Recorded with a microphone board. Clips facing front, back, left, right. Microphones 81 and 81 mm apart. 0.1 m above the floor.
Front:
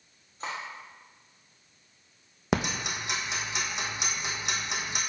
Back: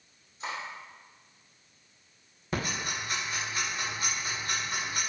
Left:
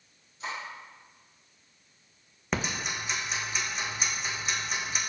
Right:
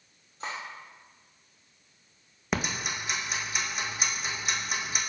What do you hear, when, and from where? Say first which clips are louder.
0.4 s cutlery clinking: front 1 dB, even; 45° right, 2.5 m
2.5 s ticking: front 4 dB, right 1 dB; 5° right, 1.5 m